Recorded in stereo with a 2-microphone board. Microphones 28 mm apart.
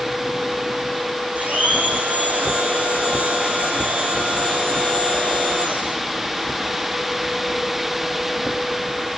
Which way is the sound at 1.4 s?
70° right (ahead or behind).